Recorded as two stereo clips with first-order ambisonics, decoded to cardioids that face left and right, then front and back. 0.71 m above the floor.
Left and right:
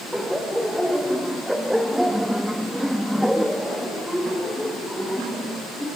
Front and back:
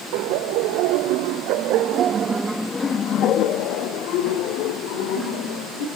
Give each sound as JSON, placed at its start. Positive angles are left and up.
{"t": 0.1, "sound": "laughter", "azimuth_deg": 180, "distance_m": 2.5}